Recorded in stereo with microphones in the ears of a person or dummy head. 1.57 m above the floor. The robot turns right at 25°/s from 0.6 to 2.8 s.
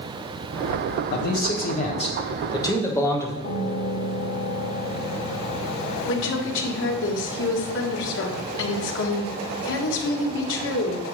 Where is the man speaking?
125° left, 1.2 m; by 3.3 s 165° left, 1.2 m.